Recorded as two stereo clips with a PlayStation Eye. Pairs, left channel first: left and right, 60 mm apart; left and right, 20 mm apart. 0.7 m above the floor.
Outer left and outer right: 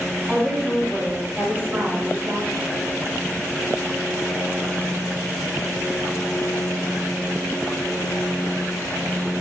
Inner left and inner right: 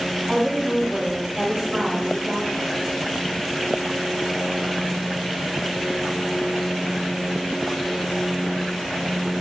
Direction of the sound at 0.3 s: Centre (ahead or behind).